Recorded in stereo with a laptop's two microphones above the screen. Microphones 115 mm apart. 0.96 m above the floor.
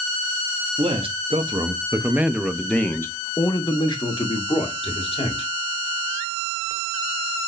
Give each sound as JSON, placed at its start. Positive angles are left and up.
{"t": 0.8, "sound": "a man speaking", "side_deg": -60, "distance_m": 1.1}